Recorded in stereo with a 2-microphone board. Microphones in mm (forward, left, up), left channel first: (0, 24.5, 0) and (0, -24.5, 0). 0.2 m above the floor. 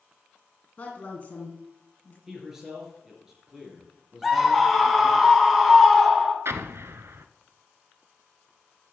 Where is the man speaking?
10° right (ahead or behind), 4 m.